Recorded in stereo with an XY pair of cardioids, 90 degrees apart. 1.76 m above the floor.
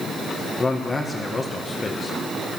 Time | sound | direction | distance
0.6 | a man speaking | 30° left | 2.0 m